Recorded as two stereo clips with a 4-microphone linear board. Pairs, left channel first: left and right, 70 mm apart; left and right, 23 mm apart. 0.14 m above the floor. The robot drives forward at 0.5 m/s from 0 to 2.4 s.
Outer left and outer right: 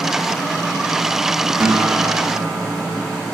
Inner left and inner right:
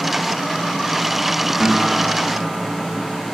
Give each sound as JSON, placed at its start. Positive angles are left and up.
{"t": 1.6, "sound": "a guitar", "side_deg": -40, "distance_m": 6.0}